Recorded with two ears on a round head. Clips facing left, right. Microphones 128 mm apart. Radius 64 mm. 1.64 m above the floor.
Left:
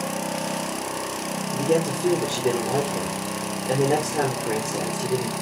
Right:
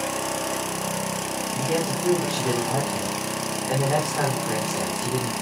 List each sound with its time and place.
1.5 s a man speaking: 30° left (ahead or behind), 5 m